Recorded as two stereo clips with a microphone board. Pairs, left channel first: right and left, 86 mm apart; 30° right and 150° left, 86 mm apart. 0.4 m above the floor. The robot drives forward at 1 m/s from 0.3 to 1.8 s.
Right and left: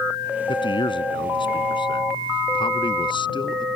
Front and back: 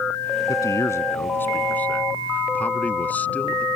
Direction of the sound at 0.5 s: 80° right.